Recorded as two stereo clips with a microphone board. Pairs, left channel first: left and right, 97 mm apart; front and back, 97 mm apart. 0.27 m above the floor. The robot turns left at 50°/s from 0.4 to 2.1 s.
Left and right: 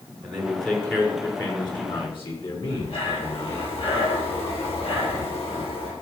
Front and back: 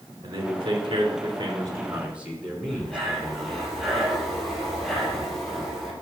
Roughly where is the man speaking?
Behind.